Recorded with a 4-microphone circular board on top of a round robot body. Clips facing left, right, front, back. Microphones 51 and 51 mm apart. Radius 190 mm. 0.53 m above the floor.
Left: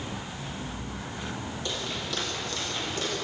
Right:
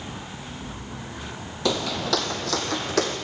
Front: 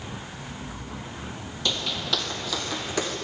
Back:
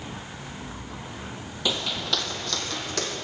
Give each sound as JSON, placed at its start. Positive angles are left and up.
{"t": 1.6, "sound": "footsteps", "azimuth_deg": -95, "distance_m": 1.4}